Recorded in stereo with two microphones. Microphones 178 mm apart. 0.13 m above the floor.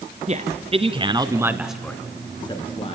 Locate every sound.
0.3 s a man speaking: 40° right (ahead or behind), 1.9 m; by 2.9 s 35° left (ahead or behind), 1.7 m